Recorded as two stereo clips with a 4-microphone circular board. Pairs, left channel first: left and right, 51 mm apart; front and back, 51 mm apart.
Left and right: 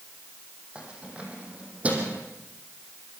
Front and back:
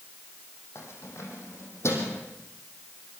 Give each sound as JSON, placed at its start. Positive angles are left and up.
{"t": 0.8, "sound": "keys jangling", "azimuth_deg": -20, "distance_m": 5.5}